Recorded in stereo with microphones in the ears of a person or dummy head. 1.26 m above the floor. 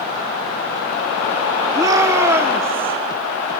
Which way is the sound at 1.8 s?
15° right (ahead or behind).